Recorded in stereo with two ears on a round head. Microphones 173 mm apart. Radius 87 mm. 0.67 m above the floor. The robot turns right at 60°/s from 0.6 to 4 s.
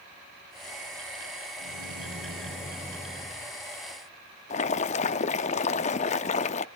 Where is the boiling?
35° left (ahead or behind), 0.6 m.